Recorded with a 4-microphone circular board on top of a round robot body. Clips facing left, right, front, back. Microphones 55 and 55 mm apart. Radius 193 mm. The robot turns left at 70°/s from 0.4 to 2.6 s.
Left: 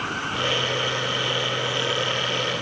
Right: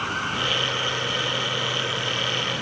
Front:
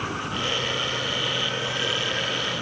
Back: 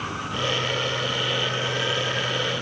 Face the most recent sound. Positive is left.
No sound to turn to.